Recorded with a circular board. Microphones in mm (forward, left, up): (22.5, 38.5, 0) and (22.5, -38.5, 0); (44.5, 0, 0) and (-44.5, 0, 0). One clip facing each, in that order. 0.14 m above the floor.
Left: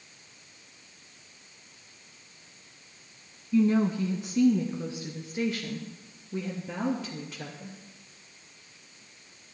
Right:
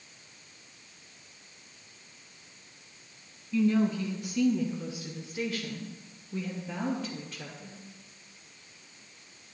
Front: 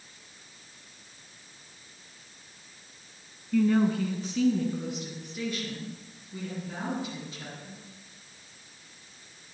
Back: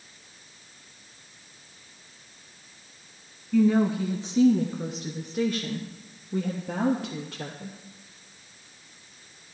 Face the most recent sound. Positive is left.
turn(degrees=165)